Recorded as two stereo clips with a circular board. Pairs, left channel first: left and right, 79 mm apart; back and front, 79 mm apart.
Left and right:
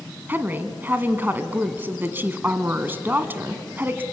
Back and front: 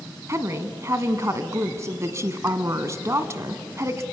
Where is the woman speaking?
35° right, 1.5 m.